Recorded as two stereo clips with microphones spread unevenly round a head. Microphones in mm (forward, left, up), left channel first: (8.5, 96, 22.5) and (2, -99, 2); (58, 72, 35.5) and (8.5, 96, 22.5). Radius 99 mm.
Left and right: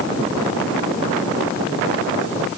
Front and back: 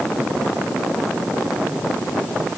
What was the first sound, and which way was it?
Only background noise.